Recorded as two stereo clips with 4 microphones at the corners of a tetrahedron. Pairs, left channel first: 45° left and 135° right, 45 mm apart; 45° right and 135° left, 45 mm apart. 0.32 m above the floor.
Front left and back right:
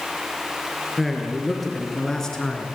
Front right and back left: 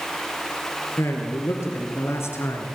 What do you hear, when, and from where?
1.0 s a man speaking: 45° right, 5 m; by 2.7 s 30° right, 4 m